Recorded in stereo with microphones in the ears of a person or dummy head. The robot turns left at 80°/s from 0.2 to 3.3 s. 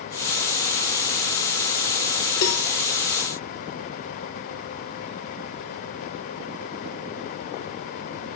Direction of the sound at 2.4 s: 55° left (ahead or behind).